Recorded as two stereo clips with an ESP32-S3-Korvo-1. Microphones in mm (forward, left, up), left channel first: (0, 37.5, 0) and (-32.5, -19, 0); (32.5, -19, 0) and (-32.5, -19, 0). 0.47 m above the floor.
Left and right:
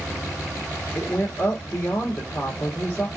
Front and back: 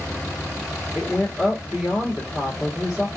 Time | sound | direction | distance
0.9 | a woman speaking | 105° left | 1.2 m